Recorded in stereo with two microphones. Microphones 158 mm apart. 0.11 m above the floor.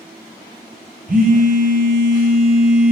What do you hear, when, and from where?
1.1 s a phone buzzing: 60° right (ahead or behind), 0.9 m